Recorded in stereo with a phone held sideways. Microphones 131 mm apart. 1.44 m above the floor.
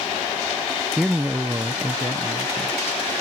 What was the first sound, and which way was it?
A man speaking, centre (ahead or behind).